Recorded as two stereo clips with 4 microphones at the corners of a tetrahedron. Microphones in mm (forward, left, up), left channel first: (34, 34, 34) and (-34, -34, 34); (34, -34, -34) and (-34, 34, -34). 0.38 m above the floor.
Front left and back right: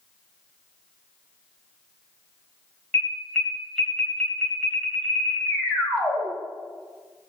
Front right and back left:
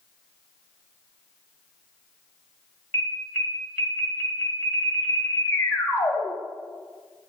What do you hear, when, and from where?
2.9 s an alarm: 20° right, 1.8 m